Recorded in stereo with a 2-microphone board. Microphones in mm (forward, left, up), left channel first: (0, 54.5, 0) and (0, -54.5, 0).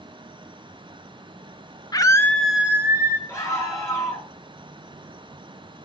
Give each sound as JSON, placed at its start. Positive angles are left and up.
{"t": 1.9, "sound": "a scream", "side_deg": 35, "distance_m": 1.2}
{"t": 3.3, "sound": "a scream", "side_deg": 20, "distance_m": 9.0}